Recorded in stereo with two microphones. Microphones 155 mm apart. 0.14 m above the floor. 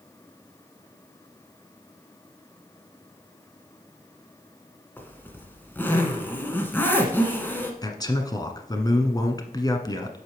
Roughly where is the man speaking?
Left.